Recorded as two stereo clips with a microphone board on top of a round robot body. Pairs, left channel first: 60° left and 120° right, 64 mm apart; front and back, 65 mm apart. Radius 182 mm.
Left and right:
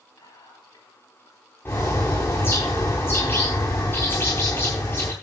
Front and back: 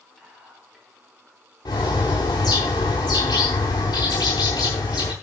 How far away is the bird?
About 0.8 m.